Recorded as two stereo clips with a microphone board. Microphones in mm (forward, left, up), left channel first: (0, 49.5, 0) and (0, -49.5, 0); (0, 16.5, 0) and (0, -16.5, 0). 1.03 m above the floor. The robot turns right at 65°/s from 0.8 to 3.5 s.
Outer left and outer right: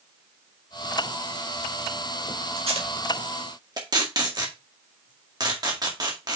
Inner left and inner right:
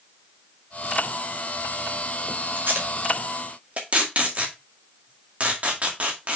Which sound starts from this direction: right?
Tape being pulled, at 2.6 s.